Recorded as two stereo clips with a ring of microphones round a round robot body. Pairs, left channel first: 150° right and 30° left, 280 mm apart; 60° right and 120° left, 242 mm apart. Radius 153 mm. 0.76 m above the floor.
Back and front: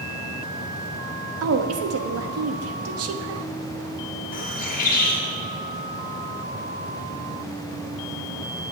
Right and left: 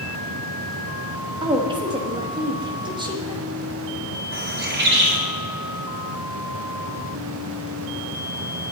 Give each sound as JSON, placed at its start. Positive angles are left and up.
{"t": 1.4, "sound": "a woman speaking", "azimuth_deg": 50, "distance_m": 1.1}
{"t": 4.3, "sound": "a bird", "azimuth_deg": 155, "distance_m": 2.5}